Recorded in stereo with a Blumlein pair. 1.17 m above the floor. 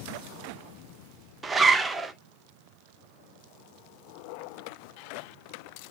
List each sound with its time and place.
1.4 s a zipper: 15° right, 0.9 m